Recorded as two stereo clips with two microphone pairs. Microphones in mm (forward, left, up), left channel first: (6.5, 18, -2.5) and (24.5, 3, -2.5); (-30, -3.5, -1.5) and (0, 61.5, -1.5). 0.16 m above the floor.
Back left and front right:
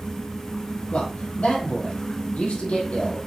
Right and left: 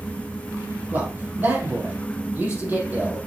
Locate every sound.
0.9 s a man speaking: 125° left, 5 m